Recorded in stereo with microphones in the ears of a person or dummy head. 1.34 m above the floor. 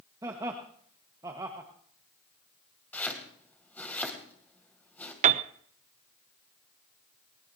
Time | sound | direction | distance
0.2 | laughter | 25° right (ahead or behind) | 1.4 m
2.9 | chopping | 5° left (ahead or behind) | 2.5 m
5.2 | a piano | 50° right (ahead or behind) | 0.6 m